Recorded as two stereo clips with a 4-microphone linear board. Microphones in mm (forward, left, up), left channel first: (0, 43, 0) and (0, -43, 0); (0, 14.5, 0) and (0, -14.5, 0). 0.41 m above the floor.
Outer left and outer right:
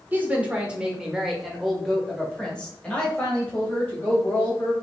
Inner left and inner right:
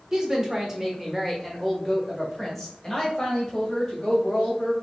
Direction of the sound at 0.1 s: 20° right (ahead or behind).